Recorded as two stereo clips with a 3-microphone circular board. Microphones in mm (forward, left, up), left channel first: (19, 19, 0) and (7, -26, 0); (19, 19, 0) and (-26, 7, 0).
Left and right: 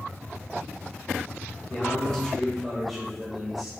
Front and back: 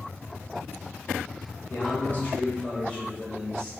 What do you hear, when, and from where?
1.7 s a man speaking: 10° left, 1.9 m; by 3.7 s 50° right, 1.5 m